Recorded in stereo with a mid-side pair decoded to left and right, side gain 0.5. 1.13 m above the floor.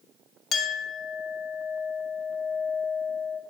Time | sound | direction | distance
0.5 | a clink | 55° left | 1.1 m